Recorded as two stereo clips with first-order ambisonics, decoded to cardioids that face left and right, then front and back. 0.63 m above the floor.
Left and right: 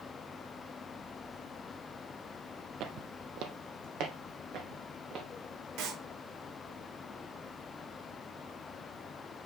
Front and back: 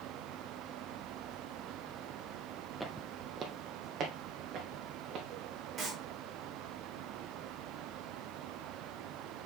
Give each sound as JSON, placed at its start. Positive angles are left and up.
{"t": 2.8, "sound": "footsteps", "azimuth_deg": -90, "distance_m": 0.8}
{"t": 5.8, "sound": "a clap", "azimuth_deg": -110, "distance_m": 3.5}